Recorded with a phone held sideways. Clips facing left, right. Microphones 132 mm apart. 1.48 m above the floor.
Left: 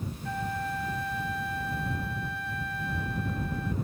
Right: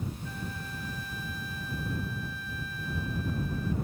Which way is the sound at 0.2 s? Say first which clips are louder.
Left 8 dB; 65° left (ahead or behind).